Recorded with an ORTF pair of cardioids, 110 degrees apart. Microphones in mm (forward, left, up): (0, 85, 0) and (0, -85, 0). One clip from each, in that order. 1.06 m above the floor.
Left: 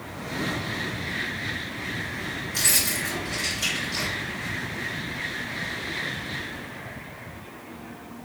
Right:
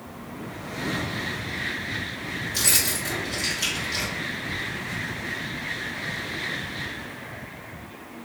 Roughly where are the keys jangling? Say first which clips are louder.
Even; ahead.